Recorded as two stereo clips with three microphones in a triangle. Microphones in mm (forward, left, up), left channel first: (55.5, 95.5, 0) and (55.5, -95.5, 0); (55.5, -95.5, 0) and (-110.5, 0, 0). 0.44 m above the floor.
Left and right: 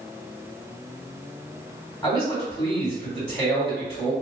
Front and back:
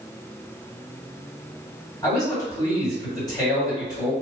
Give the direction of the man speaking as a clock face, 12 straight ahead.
11 o'clock.